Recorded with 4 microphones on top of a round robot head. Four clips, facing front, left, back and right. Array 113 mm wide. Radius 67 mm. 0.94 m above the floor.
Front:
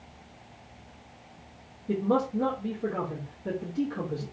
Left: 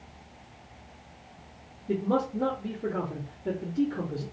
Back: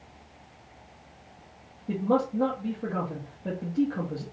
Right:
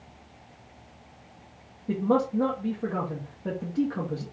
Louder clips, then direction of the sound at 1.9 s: Right 3 dB, back 1 dB; 120° right.